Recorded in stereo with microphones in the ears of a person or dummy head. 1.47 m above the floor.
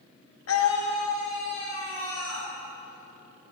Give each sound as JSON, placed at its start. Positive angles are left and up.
{"t": 0.5, "sound": "a scream", "side_deg": 75, "distance_m": 0.6}